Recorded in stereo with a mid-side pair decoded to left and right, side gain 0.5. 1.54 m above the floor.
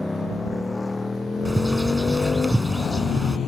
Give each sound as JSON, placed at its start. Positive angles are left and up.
{"t": 0.0, "sound": "a motorcycle", "azimuth_deg": 10}
{"t": 1.4, "sound": "a bird", "azimuth_deg": -10}